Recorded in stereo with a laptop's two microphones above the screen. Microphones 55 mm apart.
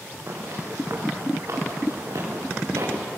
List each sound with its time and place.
0.3 s footsteps: 55° right (ahead or behind), 6 m; by 2.9 s 80° right, 7 m